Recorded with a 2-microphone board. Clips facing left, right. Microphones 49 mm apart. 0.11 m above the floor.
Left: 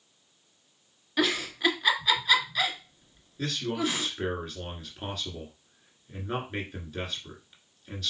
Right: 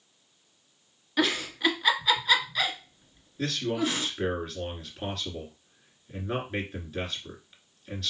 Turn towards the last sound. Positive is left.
turn(degrees=-5)  # may be behind; listen again after turning